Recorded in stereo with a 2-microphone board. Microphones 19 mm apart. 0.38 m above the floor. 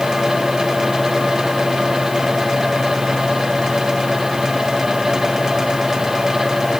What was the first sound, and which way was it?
Only background noise.